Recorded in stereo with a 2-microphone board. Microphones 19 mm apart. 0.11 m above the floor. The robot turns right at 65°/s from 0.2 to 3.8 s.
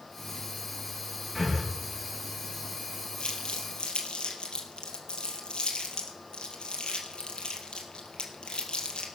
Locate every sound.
1.4 s breathing: 5° left (ahead or behind), 4 m; by 1.6 s 15° right (ahead or behind), 4 m
3.2 s crumpling: 60° left (ahead or behind), 3 m; by 9.1 s 55° left (ahead or behind), 3 m